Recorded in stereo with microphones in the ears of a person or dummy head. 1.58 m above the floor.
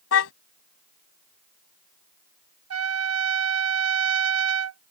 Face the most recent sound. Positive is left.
turn(degrees=-75)  # may be behind; listen again after turning